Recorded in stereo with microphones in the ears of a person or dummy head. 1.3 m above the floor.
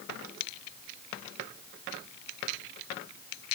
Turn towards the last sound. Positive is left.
No sound to turn to.